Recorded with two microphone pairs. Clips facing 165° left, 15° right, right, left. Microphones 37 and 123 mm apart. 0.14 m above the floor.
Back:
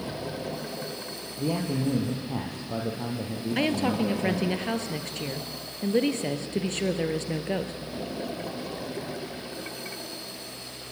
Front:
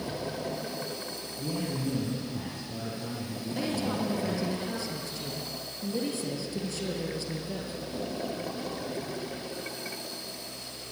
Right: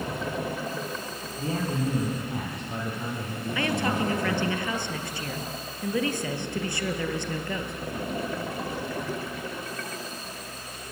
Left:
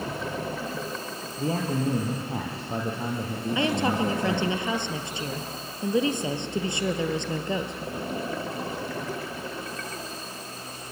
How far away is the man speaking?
About 4 m.